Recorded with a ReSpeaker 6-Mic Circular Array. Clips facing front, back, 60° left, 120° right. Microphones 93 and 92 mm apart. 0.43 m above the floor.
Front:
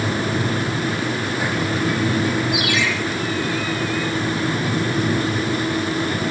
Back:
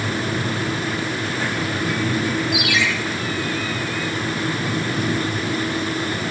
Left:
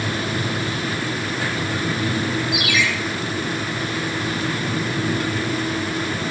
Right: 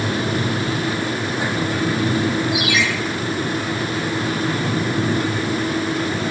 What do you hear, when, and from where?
2.5 s a ringtone: 25° left, 4.5 m